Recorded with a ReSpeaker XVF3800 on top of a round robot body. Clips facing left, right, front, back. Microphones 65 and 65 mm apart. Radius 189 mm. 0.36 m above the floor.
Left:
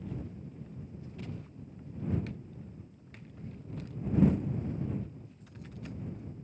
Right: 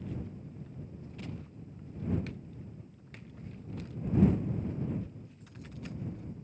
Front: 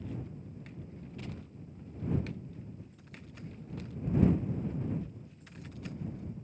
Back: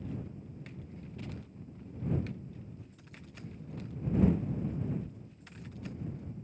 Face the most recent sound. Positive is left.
No sound to turn to.